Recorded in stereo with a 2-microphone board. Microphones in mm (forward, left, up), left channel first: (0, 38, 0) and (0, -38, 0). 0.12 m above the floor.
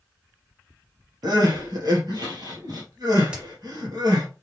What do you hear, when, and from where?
1.2 s crying: 65° right (ahead or behind), 2 m
3.3 s a crack: 15° right (ahead or behind), 2 m